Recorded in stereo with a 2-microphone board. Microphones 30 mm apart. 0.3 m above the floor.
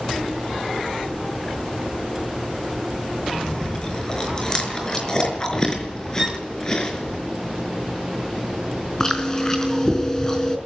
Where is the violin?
15° right (ahead or behind), 2 m.